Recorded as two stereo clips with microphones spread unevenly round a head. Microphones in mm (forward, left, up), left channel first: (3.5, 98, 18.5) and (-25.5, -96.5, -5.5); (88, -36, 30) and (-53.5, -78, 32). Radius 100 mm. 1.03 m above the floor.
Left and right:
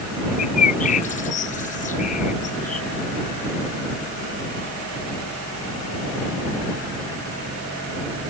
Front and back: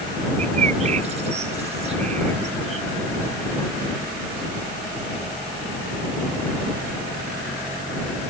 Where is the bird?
135° left.